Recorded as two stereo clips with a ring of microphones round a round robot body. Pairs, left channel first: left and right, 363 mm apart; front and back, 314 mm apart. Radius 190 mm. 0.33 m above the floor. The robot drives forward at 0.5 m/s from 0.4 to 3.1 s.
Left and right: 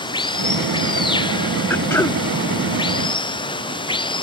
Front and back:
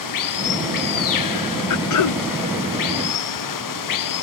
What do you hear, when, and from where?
0.0 s running water: 10° left; by 4.2 s 15° left
1.7 s throat clearing: 5° left; by 2.2 s 10° left